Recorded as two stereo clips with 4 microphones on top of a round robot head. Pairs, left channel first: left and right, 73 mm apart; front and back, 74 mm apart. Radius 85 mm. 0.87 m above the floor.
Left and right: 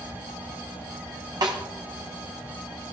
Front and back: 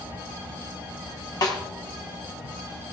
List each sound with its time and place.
1.4 s a snare drum: 50° right, 1.3 m